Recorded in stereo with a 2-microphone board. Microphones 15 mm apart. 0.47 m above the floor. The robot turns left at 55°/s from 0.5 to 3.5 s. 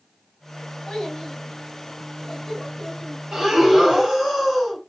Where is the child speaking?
65° left (ahead or behind), 1.7 m; by 3.2 s 35° right (ahead or behind), 1.7 m.